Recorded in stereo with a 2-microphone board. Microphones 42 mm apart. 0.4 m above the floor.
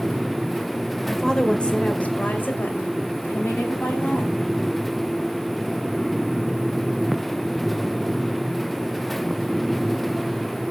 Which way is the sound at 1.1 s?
5° left (ahead or behind).